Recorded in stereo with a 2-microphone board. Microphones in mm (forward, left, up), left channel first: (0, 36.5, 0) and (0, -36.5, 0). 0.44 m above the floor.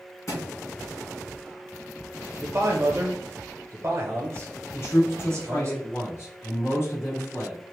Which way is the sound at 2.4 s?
40° right (ahead or behind).